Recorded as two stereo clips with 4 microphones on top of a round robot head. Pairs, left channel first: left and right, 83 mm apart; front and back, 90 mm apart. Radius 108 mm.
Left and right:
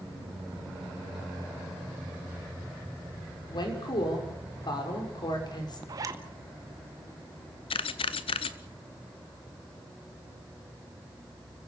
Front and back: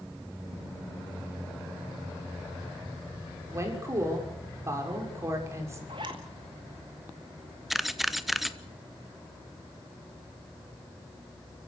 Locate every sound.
3.5 s a woman speaking: 120° left, 6 m
5.9 s a zipper: 125° right, 1.2 m
7.7 s a camera shutter: 90° left, 0.7 m